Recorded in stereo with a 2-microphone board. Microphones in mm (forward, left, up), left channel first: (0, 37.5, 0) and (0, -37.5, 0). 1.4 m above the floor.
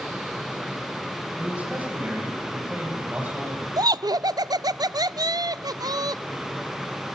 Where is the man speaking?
20° right (ahead or behind), 10 m.